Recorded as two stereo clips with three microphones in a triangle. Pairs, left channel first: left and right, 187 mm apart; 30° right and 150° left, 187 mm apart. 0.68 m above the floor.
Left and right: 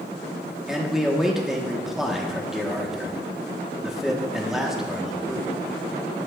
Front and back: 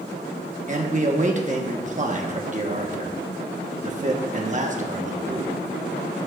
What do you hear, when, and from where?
0.7 s a man speaking: 175° right, 1.0 m